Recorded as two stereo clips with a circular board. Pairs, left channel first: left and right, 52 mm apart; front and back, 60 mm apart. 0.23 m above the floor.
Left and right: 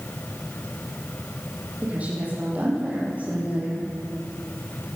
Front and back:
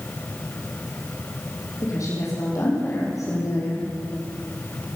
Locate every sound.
1.8 s a woman speaking: 30° right, 8 m